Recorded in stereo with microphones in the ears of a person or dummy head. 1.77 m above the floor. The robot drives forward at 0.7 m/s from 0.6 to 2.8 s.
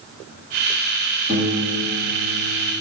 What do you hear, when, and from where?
1.3 s a piano: 40° right (ahead or behind), 1.2 m; by 2.7 s 75° right (ahead or behind), 0.9 m